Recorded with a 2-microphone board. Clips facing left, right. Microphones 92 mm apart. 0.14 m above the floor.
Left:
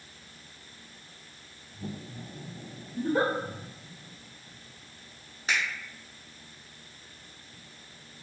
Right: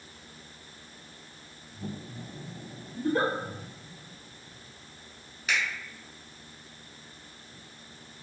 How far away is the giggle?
About 0.6 m.